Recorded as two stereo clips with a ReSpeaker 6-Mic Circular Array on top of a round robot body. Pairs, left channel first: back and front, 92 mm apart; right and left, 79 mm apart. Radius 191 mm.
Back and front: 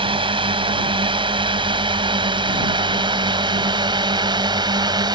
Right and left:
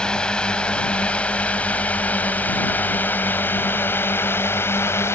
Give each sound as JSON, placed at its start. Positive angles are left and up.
{"t": 0.0, "sound": "a drone", "azimuth_deg": -10}